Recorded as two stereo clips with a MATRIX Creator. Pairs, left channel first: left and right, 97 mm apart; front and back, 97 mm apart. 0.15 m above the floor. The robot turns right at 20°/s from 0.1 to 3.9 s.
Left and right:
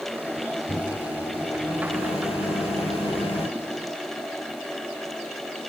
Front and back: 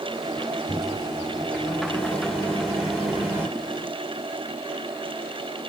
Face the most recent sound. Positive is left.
turn(degrees=110)